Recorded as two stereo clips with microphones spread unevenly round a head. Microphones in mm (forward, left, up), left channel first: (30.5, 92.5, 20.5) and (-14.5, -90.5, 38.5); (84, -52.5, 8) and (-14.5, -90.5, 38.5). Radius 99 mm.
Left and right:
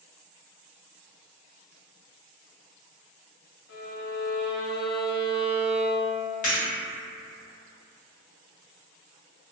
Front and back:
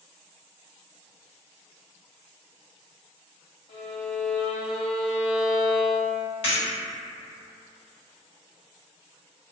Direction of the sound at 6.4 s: 50° left.